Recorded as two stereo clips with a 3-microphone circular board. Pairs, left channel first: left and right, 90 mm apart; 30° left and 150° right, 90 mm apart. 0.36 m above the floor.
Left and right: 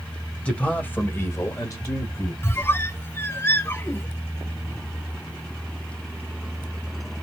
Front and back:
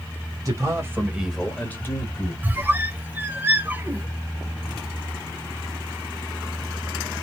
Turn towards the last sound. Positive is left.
turn(degrees=145)